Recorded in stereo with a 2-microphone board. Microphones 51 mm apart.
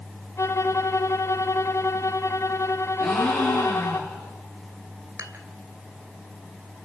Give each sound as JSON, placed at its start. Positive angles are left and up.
{"t": 0.4, "sound": "a violin", "side_deg": 60, "distance_m": 1.4}
{"t": 3.0, "sound": "a gasp", "side_deg": 0, "distance_m": 9.5}
{"t": 5.2, "sound": "dishes clattering", "side_deg": -70, "distance_m": 2.5}